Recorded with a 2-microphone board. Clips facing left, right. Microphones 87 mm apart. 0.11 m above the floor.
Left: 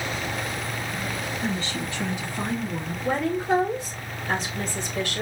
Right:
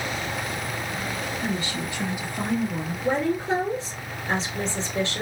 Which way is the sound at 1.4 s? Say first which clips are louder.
Left 1 dB; 10° right (ahead or behind).